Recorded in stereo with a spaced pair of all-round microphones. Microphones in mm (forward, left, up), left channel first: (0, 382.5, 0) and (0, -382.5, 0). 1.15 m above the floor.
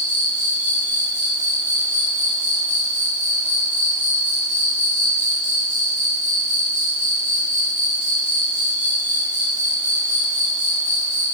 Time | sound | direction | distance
0.0 | an insect | 10° right (ahead or behind) | 1.4 m